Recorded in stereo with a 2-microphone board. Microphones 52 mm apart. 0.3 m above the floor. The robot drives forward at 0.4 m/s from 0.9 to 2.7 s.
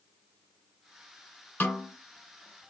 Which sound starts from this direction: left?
A snare drum, at 1.6 s.